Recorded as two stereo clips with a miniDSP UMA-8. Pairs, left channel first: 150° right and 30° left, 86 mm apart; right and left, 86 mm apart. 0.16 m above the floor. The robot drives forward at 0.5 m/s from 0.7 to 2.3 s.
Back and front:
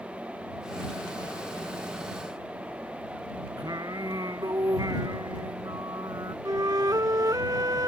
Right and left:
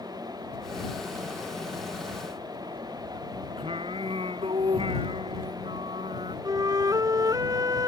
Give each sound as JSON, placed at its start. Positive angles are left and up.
{"t": 3.6, "sound": "singing", "azimuth_deg": 75}
{"t": 6.5, "sound": "a flute", "azimuth_deg": 60}